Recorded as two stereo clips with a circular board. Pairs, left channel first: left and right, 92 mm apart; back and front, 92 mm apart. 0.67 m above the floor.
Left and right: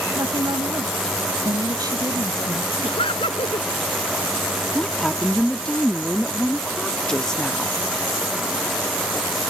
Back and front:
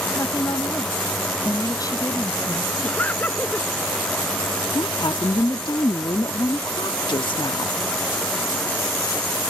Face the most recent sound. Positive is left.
turn(degrees=170)